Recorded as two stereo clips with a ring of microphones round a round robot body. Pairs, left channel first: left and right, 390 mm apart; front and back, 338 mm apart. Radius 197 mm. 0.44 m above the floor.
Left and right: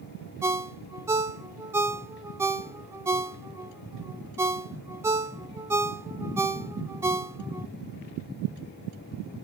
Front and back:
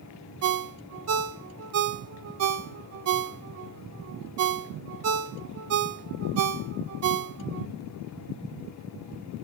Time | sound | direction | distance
0.4 | a ringtone | 170° right | 0.5 m